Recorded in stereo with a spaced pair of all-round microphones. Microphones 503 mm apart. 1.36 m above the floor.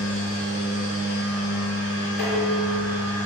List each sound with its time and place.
0.0 s a machine running: 60° left (ahead or behind), 1.5 m
2.2 s dishes clattering: 50° left (ahead or behind), 1.6 m